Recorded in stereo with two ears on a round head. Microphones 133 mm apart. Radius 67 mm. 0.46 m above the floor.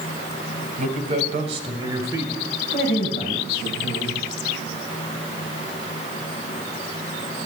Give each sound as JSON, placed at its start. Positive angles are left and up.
{"t": 0.8, "sound": "a man speaking", "side_deg": -55, "distance_m": 2.0}
{"t": 2.7, "sound": "a man speaking", "side_deg": 45, "distance_m": 3.0}